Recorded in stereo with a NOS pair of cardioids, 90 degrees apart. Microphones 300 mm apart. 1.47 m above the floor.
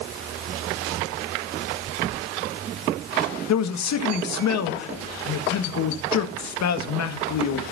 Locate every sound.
3.5 s a man speaking: 65° left, 1.9 m